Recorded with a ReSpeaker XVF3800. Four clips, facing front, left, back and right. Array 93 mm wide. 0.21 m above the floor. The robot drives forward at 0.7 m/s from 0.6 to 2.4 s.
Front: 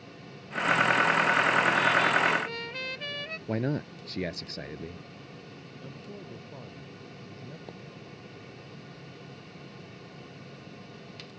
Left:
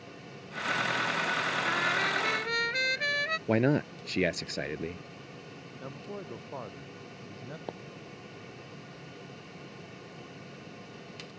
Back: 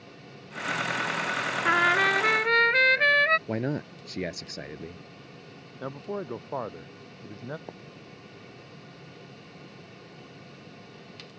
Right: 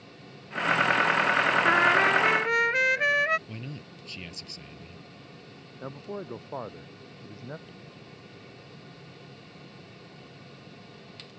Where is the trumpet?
140° right; by 3.4 s 155° right.